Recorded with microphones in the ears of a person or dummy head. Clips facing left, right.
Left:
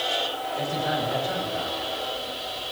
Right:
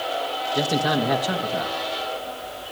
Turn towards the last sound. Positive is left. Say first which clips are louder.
# right 6 dB
turn(degrees=-85)